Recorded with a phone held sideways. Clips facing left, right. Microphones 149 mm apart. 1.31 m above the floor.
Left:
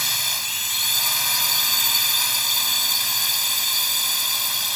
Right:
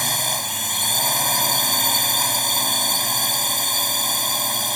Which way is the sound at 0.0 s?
50° right (ahead or behind).